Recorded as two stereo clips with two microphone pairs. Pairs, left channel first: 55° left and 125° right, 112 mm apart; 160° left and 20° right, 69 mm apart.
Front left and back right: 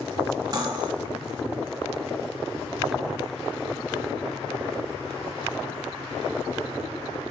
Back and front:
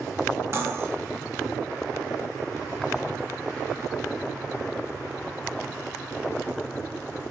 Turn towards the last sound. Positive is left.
turn(degrees=-70)